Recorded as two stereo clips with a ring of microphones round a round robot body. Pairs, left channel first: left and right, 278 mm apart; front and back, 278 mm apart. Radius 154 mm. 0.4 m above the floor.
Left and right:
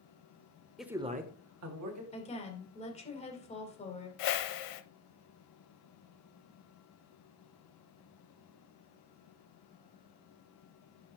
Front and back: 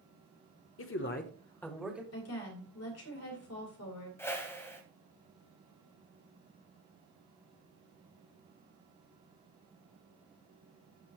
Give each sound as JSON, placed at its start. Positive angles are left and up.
{"t": 0.8, "sound": "a man speaking", "azimuth_deg": 0, "distance_m": 1.2}
{"t": 2.1, "sound": "a woman speaking", "azimuth_deg": 25, "distance_m": 2.5}
{"t": 4.2, "sound": "a whoosh", "azimuth_deg": 80, "distance_m": 0.7}